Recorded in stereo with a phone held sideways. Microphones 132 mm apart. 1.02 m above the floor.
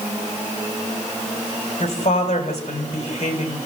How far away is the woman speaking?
About 4.5 m.